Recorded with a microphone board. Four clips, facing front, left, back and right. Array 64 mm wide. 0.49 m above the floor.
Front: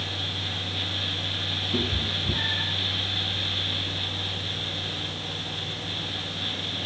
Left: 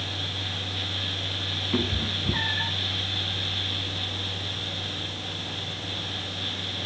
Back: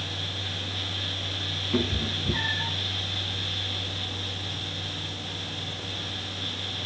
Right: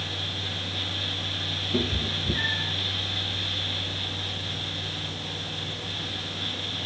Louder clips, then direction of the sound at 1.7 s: Even, back 2 dB; 110° left.